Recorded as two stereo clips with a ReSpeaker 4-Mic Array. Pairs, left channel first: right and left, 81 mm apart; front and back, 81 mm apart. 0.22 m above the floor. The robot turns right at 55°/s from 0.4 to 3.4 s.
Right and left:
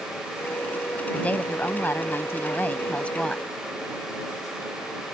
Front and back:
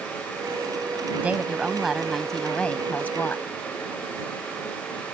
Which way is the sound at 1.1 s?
140° right.